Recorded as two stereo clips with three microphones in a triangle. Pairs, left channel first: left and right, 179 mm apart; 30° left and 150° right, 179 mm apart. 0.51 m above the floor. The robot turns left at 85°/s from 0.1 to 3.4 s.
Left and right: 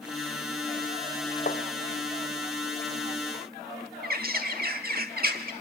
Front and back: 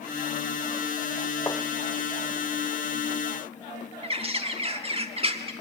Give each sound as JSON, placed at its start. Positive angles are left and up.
{"t": 1.5, "sound": "tapping", "azimuth_deg": 100, "distance_m": 0.9}
{"t": 4.0, "sound": "a bird", "azimuth_deg": -100, "distance_m": 1.3}